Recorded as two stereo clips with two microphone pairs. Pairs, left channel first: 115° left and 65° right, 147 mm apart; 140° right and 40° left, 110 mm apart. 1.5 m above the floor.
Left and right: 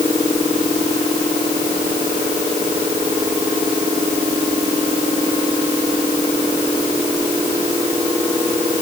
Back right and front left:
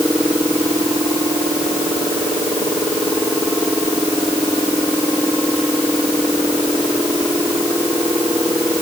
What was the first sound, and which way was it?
Only background noise.